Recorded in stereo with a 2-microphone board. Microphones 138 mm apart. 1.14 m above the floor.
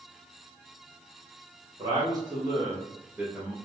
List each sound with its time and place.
1.8 s a man speaking: 30° right (ahead or behind), 1.4 m; by 3.5 s 5° left (ahead or behind), 0.6 m